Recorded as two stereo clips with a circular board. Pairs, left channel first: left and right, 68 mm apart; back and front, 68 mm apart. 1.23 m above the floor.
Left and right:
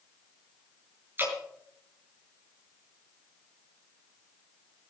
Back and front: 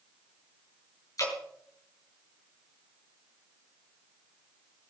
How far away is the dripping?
About 6.5 m.